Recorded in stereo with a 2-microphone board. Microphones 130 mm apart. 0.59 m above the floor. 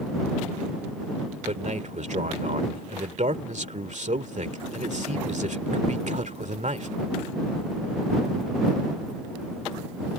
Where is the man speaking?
65° right (ahead or behind).